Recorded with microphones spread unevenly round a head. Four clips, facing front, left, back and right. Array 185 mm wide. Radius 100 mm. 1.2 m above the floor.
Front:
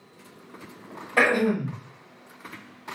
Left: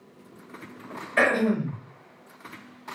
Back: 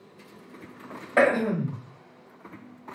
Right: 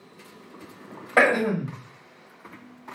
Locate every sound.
1.2 s throat clearing: 110° right, 1.0 m